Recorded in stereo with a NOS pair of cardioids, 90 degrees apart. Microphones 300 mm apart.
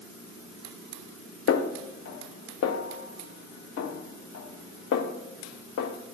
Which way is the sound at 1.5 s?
55° left.